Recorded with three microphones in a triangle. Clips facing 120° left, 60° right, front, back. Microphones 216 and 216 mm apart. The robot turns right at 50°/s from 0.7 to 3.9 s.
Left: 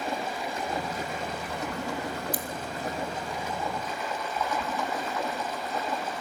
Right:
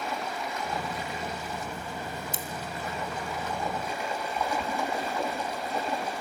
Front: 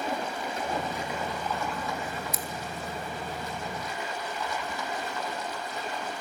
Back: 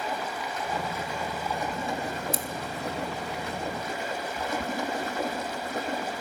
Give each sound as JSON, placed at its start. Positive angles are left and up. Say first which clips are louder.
{"t": 0.0, "sound": "running water", "louder": "left 2 dB, front 1 dB", "azimuth_deg": 60, "distance_m": 5.0}
{"t": 2.3, "sound": "scissors", "louder": "left 3 dB, back 3 dB", "azimuth_deg": -125, "distance_m": 1.8}